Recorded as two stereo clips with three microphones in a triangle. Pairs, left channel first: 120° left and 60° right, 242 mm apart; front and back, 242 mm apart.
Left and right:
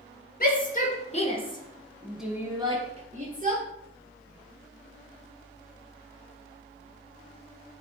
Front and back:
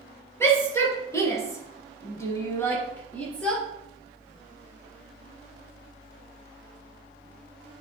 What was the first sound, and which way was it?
A shout, 75° left.